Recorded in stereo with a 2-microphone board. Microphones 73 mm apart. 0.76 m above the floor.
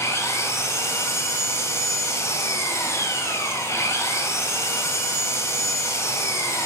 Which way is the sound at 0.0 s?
40° left (ahead or behind).